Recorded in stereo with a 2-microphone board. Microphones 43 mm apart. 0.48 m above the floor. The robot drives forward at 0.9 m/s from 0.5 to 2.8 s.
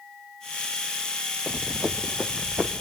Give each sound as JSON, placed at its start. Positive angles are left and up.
{"t": 1.5, "sound": "running footsteps", "side_deg": -5, "distance_m": 0.9}